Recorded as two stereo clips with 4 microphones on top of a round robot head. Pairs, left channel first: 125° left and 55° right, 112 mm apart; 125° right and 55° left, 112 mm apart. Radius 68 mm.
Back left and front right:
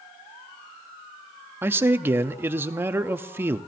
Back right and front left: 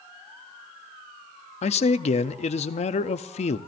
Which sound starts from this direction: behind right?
A man speaking, at 1.6 s.